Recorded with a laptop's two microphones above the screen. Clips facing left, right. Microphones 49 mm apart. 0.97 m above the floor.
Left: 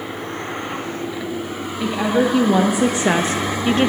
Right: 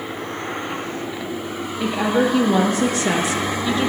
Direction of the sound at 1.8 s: 5° right (ahead or behind).